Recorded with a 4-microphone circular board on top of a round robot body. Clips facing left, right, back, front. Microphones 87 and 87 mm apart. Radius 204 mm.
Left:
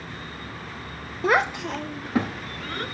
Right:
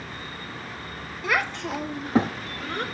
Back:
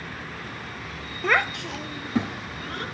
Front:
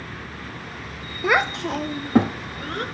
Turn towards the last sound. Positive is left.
turn(degrees=-40)